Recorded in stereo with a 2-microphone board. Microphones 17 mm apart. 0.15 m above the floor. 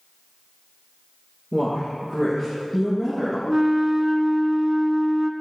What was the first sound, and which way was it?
A woman speaking, 15° left (ahead or behind).